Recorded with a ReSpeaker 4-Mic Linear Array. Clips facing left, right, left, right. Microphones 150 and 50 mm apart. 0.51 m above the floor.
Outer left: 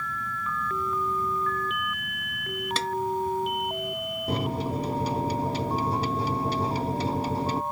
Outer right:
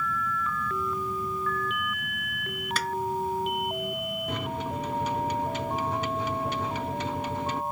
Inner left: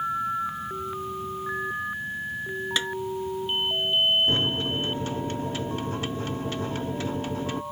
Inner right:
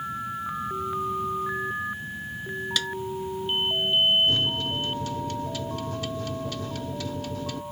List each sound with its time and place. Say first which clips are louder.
2.8 s a snare drum: outer left 1 dB, inner left 2 dB; 25° left (ahead or behind)
4.3 s a microwave: outer left 7 dB, even; 35° left (ahead or behind)